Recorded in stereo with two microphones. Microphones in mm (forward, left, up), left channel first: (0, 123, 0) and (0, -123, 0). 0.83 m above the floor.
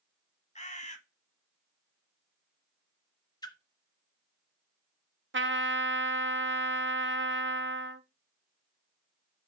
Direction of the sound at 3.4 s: 15° left (ahead or behind).